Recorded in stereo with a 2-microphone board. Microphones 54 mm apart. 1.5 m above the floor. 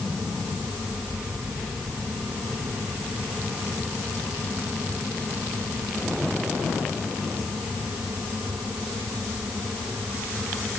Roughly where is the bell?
I don't hear a bell.